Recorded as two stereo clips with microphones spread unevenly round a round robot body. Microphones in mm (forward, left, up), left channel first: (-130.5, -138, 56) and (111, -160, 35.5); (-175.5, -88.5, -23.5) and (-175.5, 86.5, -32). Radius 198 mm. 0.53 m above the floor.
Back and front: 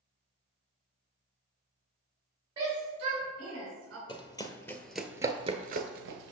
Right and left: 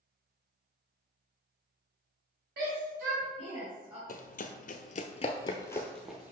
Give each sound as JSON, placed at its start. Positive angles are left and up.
{"t": 2.6, "sound": "a shout", "azimuth_deg": 75, "distance_m": 2.5}
{"t": 4.1, "sound": "running footsteps", "azimuth_deg": -120, "distance_m": 1.0}